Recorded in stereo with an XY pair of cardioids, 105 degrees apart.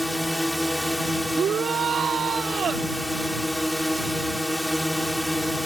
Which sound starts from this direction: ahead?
A drone, at 0.0 s.